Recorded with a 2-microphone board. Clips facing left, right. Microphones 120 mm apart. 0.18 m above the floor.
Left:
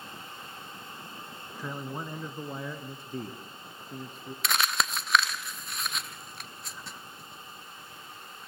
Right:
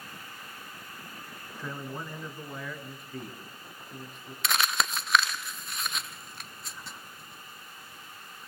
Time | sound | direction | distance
1.6 | a man speaking | 10° left (ahead or behind) | 2.0 m
4.4 | crumpling | centre (ahead or behind) | 0.9 m